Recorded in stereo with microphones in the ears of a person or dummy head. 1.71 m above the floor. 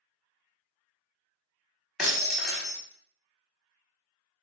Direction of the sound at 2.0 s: Centre (ahead or behind).